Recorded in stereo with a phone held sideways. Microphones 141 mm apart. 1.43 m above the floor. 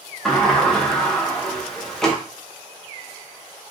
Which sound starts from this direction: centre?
A sliding door, at 0.2 s.